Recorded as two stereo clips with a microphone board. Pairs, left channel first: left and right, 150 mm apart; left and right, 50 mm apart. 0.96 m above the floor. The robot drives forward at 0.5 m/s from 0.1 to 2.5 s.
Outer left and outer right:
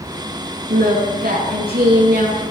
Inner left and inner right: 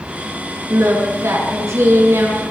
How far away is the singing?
About 8.5 m.